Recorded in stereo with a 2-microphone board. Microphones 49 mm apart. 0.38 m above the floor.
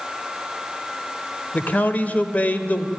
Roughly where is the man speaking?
Left.